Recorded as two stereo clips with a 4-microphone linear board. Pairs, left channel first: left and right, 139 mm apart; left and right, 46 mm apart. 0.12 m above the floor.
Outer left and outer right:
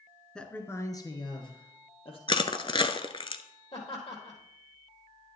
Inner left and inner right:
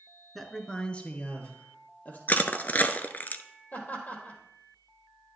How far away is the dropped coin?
No dropped coin in this recording.